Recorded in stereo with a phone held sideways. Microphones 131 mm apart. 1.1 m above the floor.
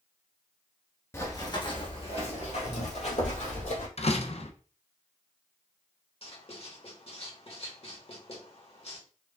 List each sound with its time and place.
1.1 s running footsteps: 20° left (ahead or behind), 1.1 m; by 3.9 s 65° left (ahead or behind), 2.5 m
4.0 s a door slam: 50° left (ahead or behind), 0.6 m
6.2 s writing: 50° left (ahead or behind), 1.4 m